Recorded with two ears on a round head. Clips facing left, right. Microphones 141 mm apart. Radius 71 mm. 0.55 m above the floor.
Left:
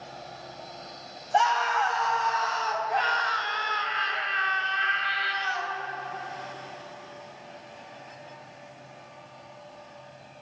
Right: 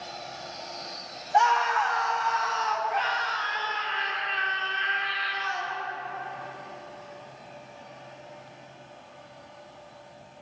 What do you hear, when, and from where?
1.3 s a scream: 35° left (ahead or behind), 3 m; by 5.8 s 75° left (ahead or behind), 3 m